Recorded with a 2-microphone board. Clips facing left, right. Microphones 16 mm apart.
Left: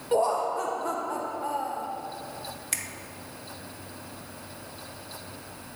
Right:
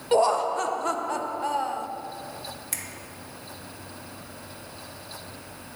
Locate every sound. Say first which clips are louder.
0.1 s laughter: right 3 dB; 40° right (ahead or behind), 0.7 m
2.7 s a finger snap: left 4 dB; 20° left (ahead or behind), 0.7 m